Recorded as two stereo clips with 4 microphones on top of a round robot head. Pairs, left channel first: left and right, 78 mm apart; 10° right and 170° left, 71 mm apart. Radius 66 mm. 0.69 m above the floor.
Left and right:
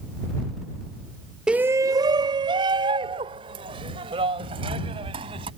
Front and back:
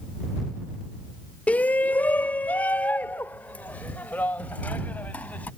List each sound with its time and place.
1.5 s a shout: 30° right; by 5.5 s 85° right